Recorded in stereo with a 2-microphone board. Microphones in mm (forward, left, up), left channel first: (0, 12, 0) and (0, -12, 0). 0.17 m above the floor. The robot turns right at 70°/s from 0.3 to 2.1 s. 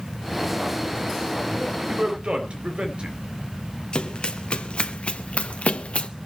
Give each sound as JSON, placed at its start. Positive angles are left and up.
{"t": 1.6, "sound": "a man speaking", "azimuth_deg": -145, "distance_m": 3.5}
{"t": 3.9, "sound": "running footsteps", "side_deg": 45, "distance_m": 2.5}